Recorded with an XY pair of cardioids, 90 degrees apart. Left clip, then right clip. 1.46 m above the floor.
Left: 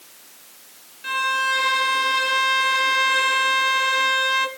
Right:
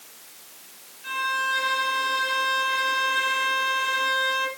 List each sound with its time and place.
1.0 s a violin: 65° left, 1.9 m